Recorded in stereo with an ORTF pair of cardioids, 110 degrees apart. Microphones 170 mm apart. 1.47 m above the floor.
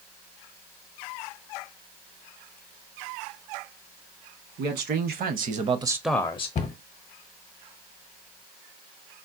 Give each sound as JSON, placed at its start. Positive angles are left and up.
{"t": 4.6, "sound": "a man speaking", "azimuth_deg": -70, "distance_m": 1.3}
{"t": 6.5, "sound": "a cupboard door", "azimuth_deg": 40, "distance_m": 0.7}